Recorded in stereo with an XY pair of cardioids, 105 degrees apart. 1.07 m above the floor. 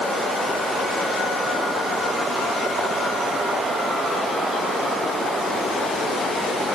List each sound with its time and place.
Only background noise.